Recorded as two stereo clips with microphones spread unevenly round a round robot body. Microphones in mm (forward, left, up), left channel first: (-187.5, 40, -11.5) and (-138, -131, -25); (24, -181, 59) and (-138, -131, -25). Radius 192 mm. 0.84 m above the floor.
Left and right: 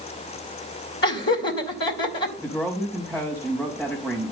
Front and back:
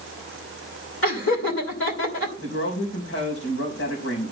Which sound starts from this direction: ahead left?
Laughter, at 1.0 s.